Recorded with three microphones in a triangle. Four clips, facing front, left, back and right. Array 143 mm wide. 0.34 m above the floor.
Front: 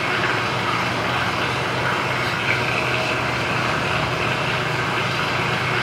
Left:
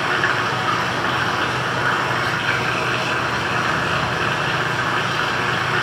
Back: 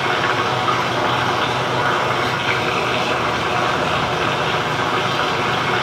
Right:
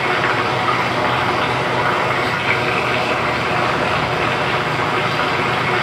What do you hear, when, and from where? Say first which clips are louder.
0.0 s running water: right 3 dB, back 4 dB; 130° right, 4 m